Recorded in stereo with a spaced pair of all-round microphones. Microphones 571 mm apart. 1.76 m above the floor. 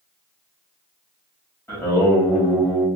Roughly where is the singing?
Centre.